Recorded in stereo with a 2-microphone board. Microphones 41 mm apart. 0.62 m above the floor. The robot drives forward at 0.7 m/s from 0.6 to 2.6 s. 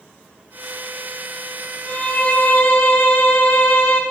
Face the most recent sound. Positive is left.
turn(degrees=50)  # may be behind; listen again after turning